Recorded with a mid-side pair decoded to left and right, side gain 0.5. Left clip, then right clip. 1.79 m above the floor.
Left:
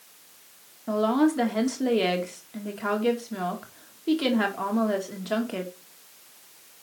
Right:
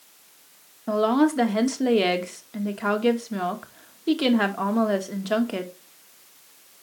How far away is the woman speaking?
About 2 m.